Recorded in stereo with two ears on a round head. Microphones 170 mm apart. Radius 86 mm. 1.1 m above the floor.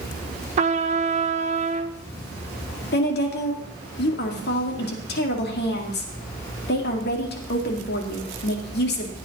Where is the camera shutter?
No camera shutter in this recording.